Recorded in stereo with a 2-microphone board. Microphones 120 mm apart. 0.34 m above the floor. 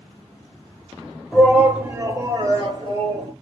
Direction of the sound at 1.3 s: Centre (ahead or behind).